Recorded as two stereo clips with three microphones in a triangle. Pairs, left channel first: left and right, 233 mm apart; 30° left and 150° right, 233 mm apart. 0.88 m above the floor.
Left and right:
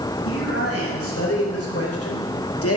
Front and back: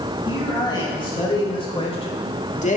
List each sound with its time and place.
0.2 s a man speaking: 100° left, 5 m; by 2.8 s 85° left, 1.4 m